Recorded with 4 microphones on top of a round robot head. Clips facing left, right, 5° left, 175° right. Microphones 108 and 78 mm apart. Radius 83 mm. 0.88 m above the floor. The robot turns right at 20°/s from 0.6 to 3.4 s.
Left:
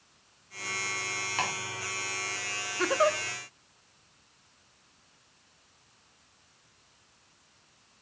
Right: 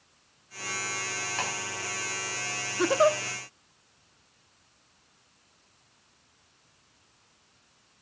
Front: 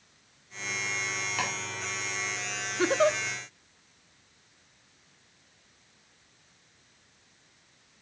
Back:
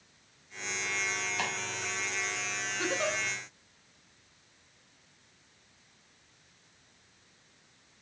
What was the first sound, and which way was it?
Chopping, 10° left.